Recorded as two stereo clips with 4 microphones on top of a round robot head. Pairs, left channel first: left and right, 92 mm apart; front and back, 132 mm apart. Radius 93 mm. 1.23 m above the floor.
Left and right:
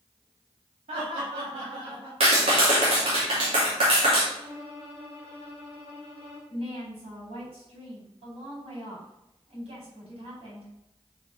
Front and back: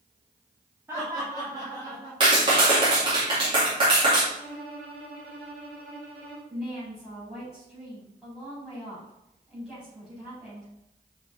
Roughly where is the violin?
Behind.